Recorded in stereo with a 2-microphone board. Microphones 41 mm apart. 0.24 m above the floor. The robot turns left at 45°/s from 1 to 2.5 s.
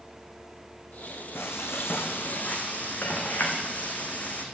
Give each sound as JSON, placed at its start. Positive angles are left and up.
{"t": 1.4, "sound": "frying", "azimuth_deg": 100, "distance_m": 2.5}